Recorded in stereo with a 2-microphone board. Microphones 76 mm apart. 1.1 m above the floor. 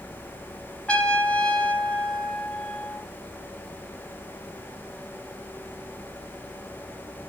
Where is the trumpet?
15° left (ahead or behind), 0.7 m.